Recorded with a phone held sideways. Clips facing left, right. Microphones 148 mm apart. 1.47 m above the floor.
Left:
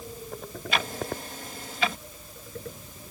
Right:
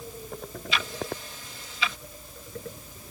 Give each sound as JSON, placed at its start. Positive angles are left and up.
{"t": 0.7, "sound": "ticking", "side_deg": 50}